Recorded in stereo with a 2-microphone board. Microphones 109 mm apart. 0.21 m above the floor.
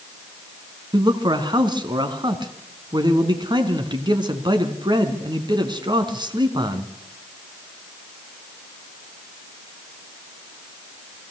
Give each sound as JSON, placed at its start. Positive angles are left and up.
{"t": 0.9, "sound": "a man speaking", "side_deg": -45, "distance_m": 2.5}